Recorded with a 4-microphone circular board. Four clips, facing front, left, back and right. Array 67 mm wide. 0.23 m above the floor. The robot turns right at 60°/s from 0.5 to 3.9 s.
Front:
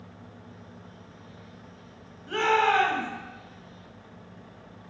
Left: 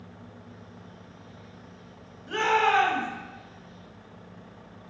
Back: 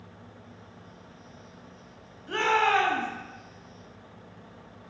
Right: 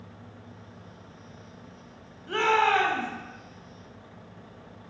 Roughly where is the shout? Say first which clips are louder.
Even, front 1 dB; right.